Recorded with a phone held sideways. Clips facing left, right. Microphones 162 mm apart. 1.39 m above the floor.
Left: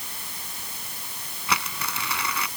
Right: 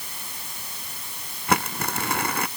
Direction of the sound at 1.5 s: 50° right (ahead or behind).